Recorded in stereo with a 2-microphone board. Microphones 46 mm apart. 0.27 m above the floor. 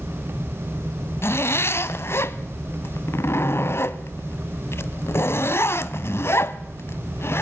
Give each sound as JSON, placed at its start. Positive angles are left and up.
{"t": 1.2, "sound": "a zipper", "side_deg": 60, "distance_m": 0.9}